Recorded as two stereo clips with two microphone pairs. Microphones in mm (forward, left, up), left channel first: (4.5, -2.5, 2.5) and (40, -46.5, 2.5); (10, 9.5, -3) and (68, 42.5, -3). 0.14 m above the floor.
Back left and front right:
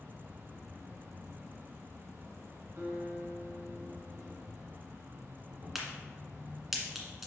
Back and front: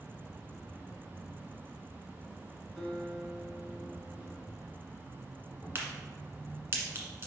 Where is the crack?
30° left, 1.6 m.